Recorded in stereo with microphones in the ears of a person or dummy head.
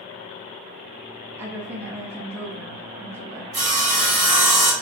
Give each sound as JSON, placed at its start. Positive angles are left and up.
{"t": 1.4, "sound": "a woman speaking", "side_deg": -10, "distance_m": 0.8}
{"t": 3.5, "sound": "sawing", "side_deg": -25, "distance_m": 1.4}